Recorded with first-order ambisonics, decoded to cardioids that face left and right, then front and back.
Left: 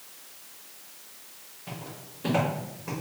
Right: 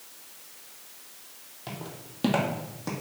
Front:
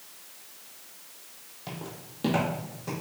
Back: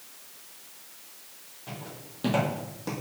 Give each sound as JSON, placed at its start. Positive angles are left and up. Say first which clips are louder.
{"t": 1.7, "sound": "footsteps", "louder": "right 1 dB, front 1 dB", "azimuth_deg": -55, "distance_m": 1.5}